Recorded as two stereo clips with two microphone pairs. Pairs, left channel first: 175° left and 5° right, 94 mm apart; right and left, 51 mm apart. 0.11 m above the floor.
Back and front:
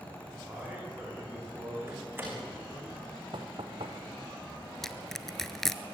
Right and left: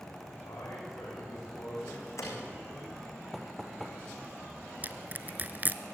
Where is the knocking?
5° right, 2.5 m.